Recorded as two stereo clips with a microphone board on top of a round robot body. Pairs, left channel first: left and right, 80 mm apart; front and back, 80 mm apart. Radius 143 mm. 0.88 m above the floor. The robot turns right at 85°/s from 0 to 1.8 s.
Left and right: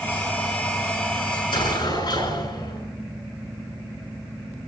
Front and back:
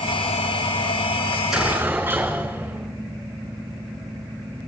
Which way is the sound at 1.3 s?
75° left.